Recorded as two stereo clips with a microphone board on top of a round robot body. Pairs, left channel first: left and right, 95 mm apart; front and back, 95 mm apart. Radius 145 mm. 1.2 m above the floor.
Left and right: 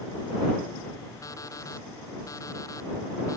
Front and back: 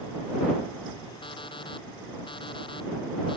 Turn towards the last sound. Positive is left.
turn(degrees=35)